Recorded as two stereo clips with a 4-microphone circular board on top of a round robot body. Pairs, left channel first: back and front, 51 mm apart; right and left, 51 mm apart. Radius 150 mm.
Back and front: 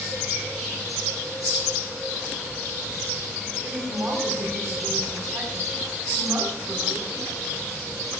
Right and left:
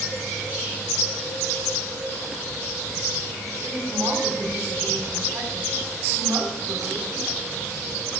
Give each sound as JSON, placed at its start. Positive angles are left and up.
{"t": 3.6, "sound": "a woman speaking", "azimuth_deg": 30, "distance_m": 6.0}